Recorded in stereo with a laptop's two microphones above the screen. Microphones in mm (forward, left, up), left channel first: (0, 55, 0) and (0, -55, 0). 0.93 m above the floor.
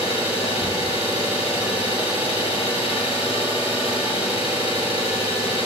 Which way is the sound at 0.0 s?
55° left (ahead or behind).